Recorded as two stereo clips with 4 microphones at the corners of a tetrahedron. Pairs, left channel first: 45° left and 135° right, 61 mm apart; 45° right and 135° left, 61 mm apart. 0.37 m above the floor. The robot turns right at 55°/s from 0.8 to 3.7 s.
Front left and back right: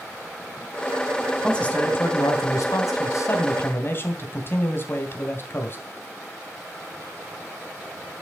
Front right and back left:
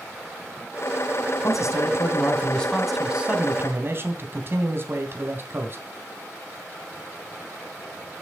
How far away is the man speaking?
About 3 m.